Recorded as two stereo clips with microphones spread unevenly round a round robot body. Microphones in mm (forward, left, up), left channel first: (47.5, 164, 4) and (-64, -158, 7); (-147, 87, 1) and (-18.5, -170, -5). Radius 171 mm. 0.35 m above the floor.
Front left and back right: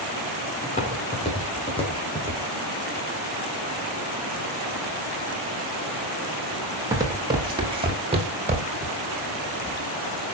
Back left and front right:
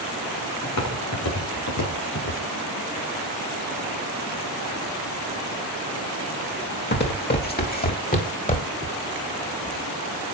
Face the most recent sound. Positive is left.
turn(degrees=180)